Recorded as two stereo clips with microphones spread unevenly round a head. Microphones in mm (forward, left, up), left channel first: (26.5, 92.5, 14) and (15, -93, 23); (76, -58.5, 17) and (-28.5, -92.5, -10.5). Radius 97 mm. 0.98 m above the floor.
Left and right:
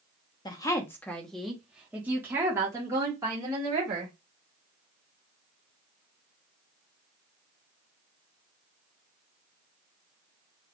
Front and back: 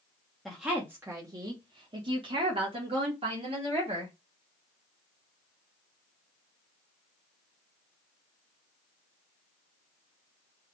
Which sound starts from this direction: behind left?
A woman speaking, at 0.5 s.